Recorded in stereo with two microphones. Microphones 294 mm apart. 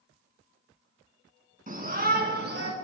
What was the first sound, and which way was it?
A shout, 30° right (ahead or behind).